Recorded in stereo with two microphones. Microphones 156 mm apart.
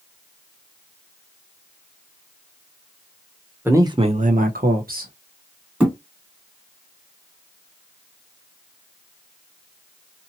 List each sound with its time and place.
3.6 s a man speaking: 15° right (ahead or behind), 0.9 m; by 5.1 s 65° right (ahead or behind), 1.2 m
5.8 s a thud: 5° right (ahead or behind), 2.0 m